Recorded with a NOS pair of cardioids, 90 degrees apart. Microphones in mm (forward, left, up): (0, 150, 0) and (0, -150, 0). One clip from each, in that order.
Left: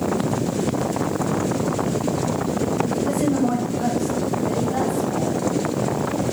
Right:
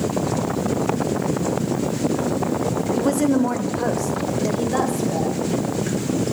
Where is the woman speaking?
45° right, 0.8 m; by 5.5 s 70° right, 2.5 m.